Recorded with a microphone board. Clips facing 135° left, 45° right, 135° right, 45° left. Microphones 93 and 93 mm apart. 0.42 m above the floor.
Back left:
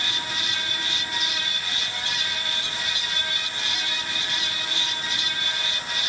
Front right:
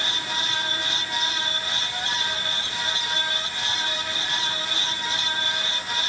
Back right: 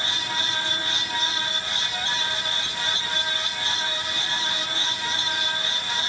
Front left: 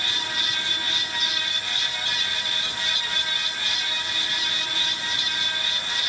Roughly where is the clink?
I don't hear a clink.